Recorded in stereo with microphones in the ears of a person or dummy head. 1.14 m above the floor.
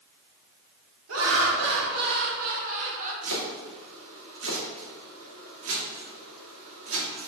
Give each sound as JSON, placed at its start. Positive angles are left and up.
{"t": 1.1, "sound": "laughter", "side_deg": -70, "distance_m": 1.6}
{"t": 3.2, "sound": "chopping", "side_deg": -80, "distance_m": 2.0}